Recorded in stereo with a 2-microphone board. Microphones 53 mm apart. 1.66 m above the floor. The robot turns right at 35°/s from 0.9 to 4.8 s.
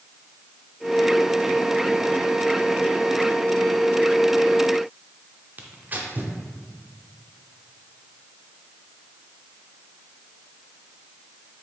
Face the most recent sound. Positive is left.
turn(degrees=-35)  # may be behind; listen again after turning